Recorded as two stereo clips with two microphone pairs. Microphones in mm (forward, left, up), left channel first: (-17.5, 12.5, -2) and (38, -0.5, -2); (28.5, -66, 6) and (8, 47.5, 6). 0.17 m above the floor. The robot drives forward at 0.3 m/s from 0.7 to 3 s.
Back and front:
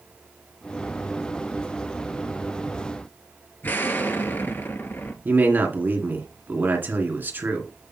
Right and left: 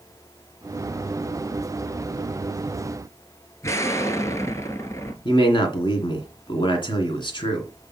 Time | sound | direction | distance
3.6 | an explosion | 140° right | 1.3 m
5.2 | a man speaking | 50° right | 2.5 m